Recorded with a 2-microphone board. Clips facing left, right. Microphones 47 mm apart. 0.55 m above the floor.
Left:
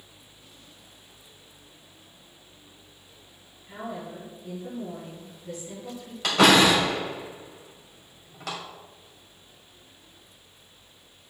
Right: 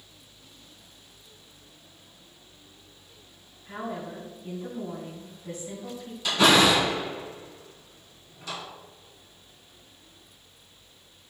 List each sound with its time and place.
3.6 s a woman speaking: 30° right (ahead or behind), 3 m
6.2 s a door slam: 75° left (ahead or behind), 2 m